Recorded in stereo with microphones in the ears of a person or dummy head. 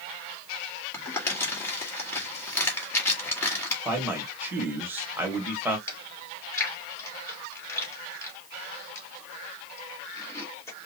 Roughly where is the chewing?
Left.